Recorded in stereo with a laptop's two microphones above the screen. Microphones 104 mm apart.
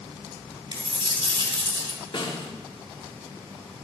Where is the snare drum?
50° left (ahead or behind), 0.8 m.